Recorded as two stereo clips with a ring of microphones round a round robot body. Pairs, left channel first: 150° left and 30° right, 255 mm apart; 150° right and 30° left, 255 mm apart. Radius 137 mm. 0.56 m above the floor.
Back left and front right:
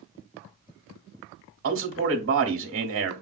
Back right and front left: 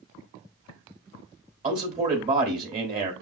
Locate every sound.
1.6 s a man speaking: 20° right, 1.4 m